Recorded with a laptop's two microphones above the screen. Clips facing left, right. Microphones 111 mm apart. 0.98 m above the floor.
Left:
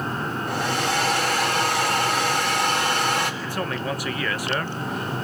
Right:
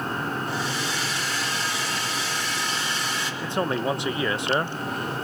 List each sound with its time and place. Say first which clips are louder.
0.5 s a hair dryer: left 4 dB; 60° left (ahead or behind), 3 m
3.4 s a man speaking: right 3 dB; 25° right (ahead or behind), 0.8 m